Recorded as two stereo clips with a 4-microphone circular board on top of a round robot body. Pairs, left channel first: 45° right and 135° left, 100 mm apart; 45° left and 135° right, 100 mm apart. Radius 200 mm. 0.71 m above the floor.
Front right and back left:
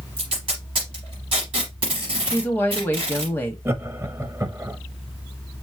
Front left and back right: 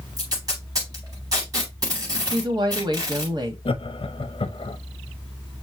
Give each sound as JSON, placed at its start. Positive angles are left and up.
{"t": 0.2, "sound": "tape being pulled", "azimuth_deg": 170, "distance_m": 0.8}
{"t": 2.3, "sound": "a woman speaking", "azimuth_deg": -110, "distance_m": 1.5}
{"t": 3.6, "sound": "laughter", "azimuth_deg": 70, "distance_m": 0.9}